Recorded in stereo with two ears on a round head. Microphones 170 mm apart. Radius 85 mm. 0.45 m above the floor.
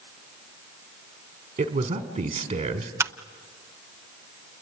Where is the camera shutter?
15° right (ahead or behind), 0.5 m.